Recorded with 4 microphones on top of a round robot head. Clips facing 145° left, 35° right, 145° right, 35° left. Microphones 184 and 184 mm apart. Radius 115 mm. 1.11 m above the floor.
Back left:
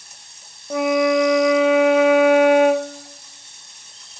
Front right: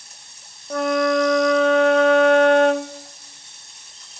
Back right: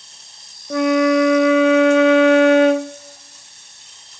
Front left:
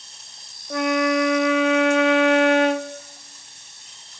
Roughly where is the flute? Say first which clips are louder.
Back left 2 dB, back right 6 dB; behind right.